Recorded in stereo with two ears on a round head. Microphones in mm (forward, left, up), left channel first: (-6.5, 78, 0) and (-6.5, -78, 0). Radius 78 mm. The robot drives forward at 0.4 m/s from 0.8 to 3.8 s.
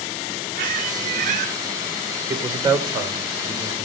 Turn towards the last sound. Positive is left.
turn(degrees=-25)  # may be behind; listen again after turning